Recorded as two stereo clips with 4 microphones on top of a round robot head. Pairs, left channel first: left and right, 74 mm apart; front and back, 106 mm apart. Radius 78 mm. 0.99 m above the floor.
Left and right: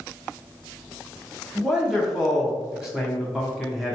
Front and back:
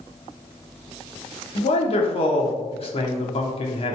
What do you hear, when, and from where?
1.6 s a man speaking: 5° right, 0.9 m